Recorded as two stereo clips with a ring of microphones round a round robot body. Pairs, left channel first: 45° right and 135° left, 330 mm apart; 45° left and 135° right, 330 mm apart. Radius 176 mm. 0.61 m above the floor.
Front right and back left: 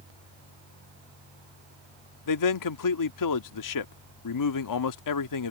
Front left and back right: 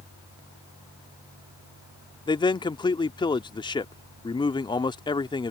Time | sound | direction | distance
2.3 | a man speaking | 30° right | ?